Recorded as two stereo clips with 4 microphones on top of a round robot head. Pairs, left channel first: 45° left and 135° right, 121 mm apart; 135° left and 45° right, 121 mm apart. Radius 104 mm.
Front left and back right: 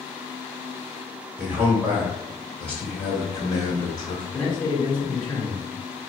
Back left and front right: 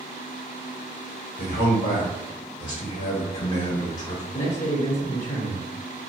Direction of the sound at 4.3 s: 105° left.